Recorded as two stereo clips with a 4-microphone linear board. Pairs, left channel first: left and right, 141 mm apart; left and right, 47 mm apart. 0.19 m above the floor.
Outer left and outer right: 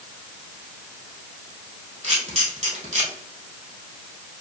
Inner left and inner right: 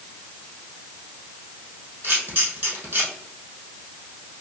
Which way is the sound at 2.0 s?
50° right (ahead or behind).